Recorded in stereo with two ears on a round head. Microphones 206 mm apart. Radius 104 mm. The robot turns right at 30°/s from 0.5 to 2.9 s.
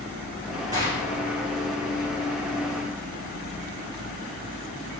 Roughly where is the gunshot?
Centre.